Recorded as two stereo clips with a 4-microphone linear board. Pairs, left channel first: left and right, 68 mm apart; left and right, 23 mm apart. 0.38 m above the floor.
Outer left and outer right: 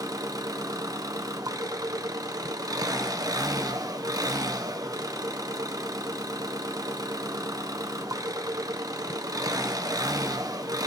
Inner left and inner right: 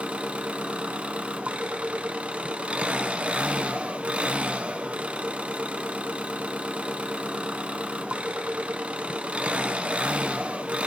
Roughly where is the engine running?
Right.